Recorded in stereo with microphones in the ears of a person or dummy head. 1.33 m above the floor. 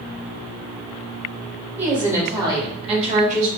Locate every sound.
1.8 s a woman speaking: 10° right (ahead or behind), 1.7 m; by 3.5 s 45° right (ahead or behind), 1.1 m